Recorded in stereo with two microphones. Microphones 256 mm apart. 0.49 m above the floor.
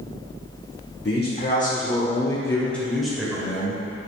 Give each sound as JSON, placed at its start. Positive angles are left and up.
{"t": 1.1, "sound": "a man speaking", "side_deg": 45, "distance_m": 1.0}